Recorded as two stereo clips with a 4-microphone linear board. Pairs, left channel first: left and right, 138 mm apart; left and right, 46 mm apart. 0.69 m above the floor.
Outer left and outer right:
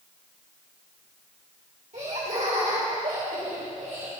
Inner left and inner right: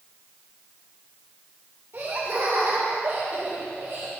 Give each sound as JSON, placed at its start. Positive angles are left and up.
{"t": 1.9, "sound": "laughter", "side_deg": -60, "distance_m": 2.5}